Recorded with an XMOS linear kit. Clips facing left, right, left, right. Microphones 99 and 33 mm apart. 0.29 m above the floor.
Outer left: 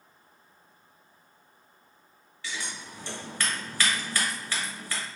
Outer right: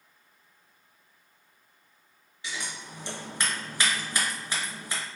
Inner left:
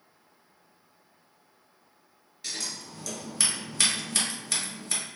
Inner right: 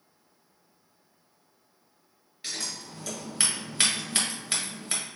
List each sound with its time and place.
2.4 s scissors: 20° right (ahead or behind), 1.2 m